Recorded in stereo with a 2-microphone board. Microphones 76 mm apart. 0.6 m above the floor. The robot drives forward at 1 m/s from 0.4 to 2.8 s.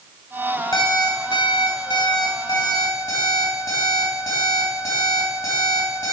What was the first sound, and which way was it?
An alarm clock, 65° left (ahead or behind).